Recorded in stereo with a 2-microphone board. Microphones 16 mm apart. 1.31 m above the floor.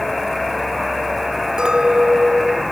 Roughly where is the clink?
Right.